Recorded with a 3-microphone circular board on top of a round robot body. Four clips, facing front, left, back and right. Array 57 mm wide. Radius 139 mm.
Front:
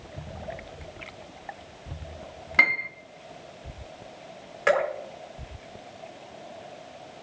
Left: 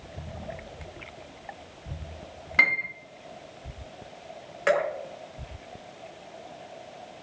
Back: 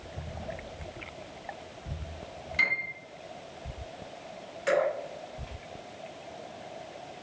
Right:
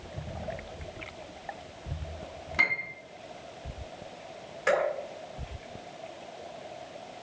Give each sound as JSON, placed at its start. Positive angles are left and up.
{"t": 2.6, "sound": "a piano", "azimuth_deg": 35, "distance_m": 1.3}
{"t": 4.7, "sound": "dripping", "azimuth_deg": 40, "distance_m": 3.5}